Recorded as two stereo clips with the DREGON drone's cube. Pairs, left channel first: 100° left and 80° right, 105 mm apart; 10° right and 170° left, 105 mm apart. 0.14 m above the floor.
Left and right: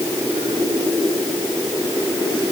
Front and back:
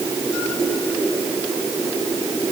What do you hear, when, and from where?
Only background noise.